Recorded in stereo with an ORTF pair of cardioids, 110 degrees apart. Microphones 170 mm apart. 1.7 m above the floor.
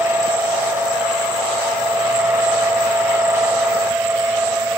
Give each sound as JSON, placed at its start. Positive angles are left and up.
{"t": 0.0, "sound": "a fan", "azimuth_deg": -15}